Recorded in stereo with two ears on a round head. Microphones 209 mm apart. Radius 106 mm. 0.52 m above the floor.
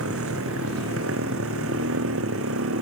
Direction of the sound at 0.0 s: 65° right (ahead or behind).